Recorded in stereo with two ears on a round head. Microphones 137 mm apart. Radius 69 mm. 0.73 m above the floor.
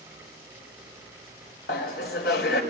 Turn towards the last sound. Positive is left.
turn(degrees=75)  # may be behind; listen again after turning